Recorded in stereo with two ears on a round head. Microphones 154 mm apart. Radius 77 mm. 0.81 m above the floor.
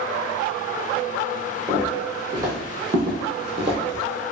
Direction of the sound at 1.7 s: 10° right (ahead or behind).